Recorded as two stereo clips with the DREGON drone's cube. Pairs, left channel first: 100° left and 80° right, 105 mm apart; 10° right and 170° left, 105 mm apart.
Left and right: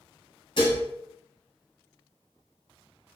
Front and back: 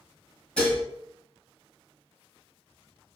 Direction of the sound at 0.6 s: 65° left.